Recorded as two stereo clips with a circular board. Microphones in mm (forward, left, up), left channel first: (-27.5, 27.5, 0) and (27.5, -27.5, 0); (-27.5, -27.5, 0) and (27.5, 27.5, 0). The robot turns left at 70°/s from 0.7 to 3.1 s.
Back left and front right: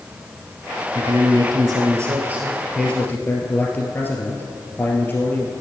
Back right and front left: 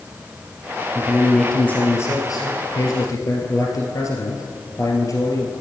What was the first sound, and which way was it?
A man speaking, 15° right.